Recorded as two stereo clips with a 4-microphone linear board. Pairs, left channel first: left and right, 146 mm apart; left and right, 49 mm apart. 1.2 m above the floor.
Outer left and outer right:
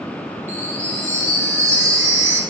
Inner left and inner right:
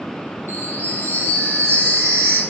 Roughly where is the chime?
Right.